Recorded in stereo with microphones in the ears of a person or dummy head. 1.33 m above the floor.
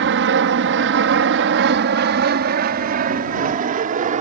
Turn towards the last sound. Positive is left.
turn(degrees=-40)  # may be behind; listen again after turning